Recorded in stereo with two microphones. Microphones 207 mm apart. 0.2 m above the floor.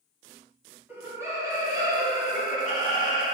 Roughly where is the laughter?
Centre.